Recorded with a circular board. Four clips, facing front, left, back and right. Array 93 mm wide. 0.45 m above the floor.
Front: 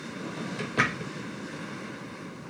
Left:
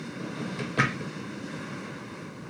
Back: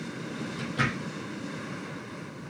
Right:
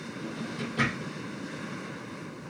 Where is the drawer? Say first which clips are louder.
Left 1 dB, front 3 dB; 45° left, 1.0 m.